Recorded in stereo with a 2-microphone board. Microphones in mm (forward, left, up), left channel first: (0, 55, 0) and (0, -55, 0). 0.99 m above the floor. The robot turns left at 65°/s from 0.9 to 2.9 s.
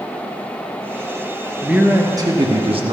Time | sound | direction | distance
1.6 | a man speaking | 5° right | 1.4 m